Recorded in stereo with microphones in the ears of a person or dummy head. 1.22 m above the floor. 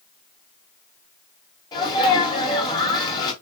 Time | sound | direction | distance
1.7 | a sneeze | 25° left (ahead or behind) | 2.5 m